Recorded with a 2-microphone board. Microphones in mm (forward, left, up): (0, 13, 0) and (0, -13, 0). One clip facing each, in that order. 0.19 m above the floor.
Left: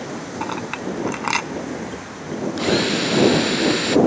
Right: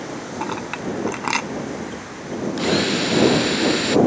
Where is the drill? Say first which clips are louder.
Even; 5° left (ahead or behind).